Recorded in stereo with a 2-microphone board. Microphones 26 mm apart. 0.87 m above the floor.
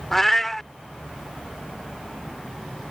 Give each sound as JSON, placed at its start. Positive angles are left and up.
{"t": 0.1, "sound": "a cat meowing", "side_deg": 10}